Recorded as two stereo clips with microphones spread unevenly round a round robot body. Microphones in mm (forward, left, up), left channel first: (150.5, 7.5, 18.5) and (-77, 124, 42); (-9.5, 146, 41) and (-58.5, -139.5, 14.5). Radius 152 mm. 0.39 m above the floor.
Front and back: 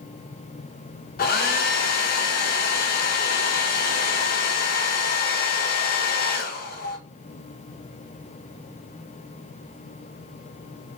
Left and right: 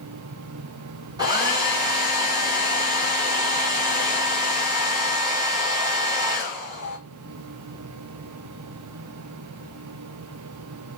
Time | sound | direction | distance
1.2 | a hair dryer | 35° right | 0.7 m